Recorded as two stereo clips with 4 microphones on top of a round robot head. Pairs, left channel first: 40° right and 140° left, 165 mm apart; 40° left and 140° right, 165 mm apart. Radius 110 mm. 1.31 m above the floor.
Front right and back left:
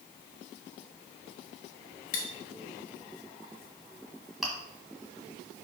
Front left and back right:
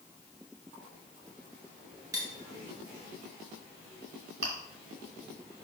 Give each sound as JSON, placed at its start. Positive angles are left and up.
{"t": 2.1, "sound": "cutlery clinking", "azimuth_deg": -70, "distance_m": 0.8}
{"t": 4.4, "sound": "chewing", "azimuth_deg": -130, "distance_m": 1.6}